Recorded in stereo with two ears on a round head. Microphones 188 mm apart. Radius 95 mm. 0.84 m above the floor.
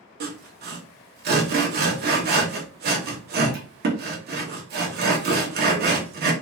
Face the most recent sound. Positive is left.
turn(degrees=-50)  # may be behind; listen again after turning